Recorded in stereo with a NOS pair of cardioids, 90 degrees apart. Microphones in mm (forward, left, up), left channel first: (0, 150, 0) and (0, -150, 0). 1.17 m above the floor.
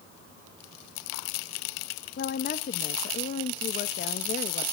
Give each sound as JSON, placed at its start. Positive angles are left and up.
{"t": 2.2, "sound": "a woman speaking", "azimuth_deg": 35, "distance_m": 1.2}